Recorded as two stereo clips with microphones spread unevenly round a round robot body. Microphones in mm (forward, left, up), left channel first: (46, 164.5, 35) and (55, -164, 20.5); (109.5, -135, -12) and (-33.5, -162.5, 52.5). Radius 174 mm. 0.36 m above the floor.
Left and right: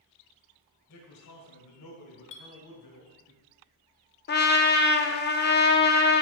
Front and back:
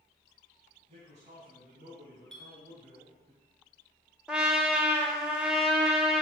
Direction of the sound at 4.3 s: 60° left.